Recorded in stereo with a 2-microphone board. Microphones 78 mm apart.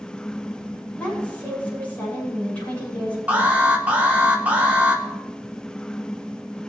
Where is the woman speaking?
20° left (ahead or behind), 8.5 m.